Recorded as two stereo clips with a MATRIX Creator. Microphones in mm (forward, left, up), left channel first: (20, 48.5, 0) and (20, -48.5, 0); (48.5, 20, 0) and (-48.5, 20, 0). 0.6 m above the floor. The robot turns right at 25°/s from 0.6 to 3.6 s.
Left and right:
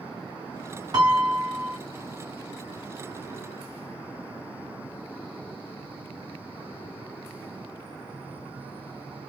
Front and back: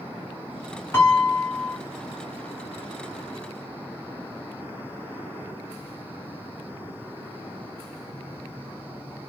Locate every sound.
0.9 s a piano: 55° right, 1.9 m; by 1.8 s 35° right, 1.9 m